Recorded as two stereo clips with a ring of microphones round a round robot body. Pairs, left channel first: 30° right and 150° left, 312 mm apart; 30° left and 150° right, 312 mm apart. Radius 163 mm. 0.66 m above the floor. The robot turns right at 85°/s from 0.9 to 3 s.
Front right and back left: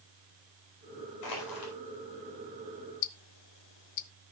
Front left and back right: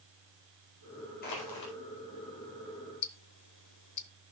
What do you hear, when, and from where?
1.2 s crushing: 30° right, 4.5 m; by 1.7 s 15° left, 4.5 m
3.0 s ticking: 15° right, 0.8 m